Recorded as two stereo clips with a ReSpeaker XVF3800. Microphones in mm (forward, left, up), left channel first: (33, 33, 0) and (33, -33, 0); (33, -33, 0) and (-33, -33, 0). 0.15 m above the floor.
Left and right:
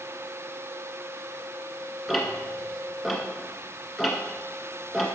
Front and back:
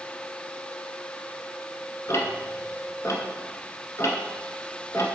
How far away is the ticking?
About 1.7 m.